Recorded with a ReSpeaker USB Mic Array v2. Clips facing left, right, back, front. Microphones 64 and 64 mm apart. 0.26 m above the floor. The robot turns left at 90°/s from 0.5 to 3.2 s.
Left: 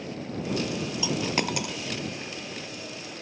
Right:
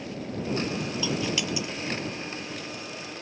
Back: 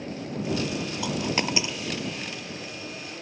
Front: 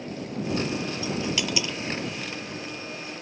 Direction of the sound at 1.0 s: 165° left.